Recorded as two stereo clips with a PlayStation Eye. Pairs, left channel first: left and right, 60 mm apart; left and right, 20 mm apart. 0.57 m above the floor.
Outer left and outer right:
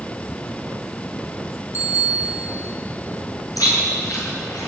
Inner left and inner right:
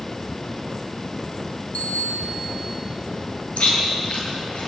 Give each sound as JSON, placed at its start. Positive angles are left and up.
{"t": 1.7, "sound": "a bicycle bell", "side_deg": 65, "distance_m": 5.0}
{"t": 3.6, "sound": "chewing", "side_deg": 85, "distance_m": 9.5}